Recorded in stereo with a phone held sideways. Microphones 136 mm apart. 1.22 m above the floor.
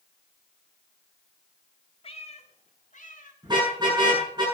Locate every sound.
2.0 s a cat meowing: 45° left (ahead or behind), 1.4 m; by 3.3 s 65° left (ahead or behind), 2 m
3.4 s a car horn: 30° right (ahead or behind), 9.5 m